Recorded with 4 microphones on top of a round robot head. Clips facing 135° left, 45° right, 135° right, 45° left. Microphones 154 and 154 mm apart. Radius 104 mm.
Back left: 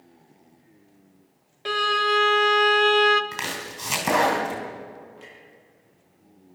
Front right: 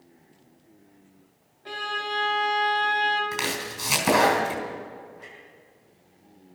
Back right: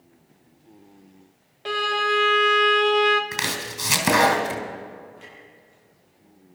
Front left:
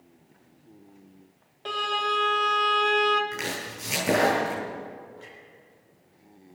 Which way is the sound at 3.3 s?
130° right.